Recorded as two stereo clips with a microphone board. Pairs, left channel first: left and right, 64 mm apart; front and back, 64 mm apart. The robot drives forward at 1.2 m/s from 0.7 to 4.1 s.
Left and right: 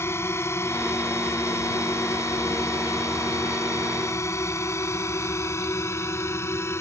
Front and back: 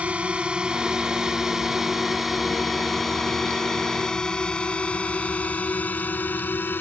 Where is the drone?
115° left; by 6.8 s 50° left.